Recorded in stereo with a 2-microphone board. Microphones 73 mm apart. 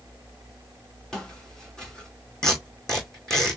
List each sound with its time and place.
1.1 s footsteps: 10° left (ahead or behind), 2.5 m
2.4 s tape being pulled: 5° left (ahead or behind), 2 m